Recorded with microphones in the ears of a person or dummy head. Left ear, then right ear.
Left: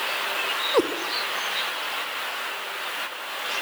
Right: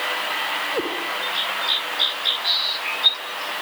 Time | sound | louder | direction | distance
0.7 | a cat meowing | left 3 dB | 70° left (ahead or behind) | 2 m